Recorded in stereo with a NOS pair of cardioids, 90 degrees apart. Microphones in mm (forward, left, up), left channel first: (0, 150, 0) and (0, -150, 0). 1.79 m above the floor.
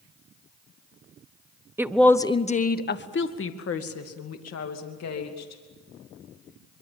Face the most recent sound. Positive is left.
turn(degrees=65)